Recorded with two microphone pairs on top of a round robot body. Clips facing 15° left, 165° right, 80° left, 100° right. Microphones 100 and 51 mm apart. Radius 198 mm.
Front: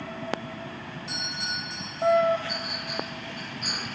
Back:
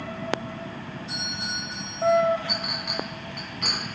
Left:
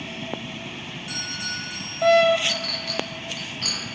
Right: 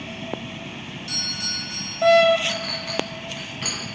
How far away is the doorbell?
About 7 m.